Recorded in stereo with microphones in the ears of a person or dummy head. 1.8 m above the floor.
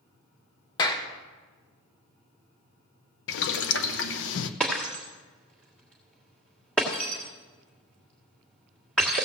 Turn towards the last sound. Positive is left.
turn(degrees=5)  # may be behind; listen again after turning